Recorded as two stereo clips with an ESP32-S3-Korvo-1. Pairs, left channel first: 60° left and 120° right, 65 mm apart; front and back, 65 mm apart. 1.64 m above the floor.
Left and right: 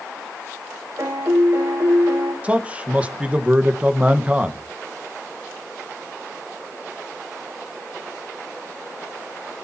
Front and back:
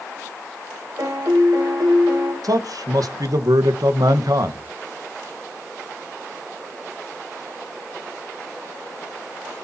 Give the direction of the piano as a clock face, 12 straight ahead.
5 o'clock.